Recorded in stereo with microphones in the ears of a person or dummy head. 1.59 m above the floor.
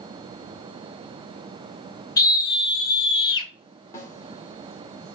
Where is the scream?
25° left (ahead or behind), 2 m; by 3.5 s 30° left (ahead or behind), 1.4 m.